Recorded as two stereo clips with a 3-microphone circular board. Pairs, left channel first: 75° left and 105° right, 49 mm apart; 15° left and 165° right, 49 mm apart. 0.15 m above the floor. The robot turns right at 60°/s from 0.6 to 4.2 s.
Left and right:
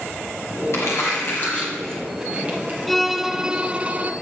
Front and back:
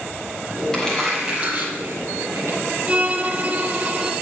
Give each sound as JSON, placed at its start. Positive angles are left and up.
{"t": 0.7, "sound": "crumpling", "azimuth_deg": 90, "distance_m": 5.5}
{"t": 2.9, "sound": "a violin", "azimuth_deg": 165, "distance_m": 0.6}